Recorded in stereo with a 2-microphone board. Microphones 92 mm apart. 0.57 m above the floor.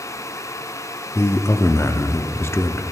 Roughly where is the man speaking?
Left.